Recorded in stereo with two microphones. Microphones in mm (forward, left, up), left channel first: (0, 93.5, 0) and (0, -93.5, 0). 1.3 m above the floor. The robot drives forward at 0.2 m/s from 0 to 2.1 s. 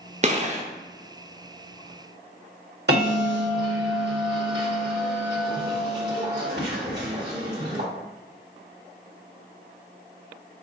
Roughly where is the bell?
Right.